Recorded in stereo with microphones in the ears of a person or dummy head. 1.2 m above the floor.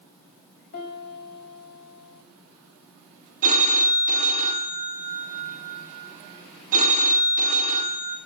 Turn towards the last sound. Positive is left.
turn(degrees=-45)  # may be behind; listen again after turning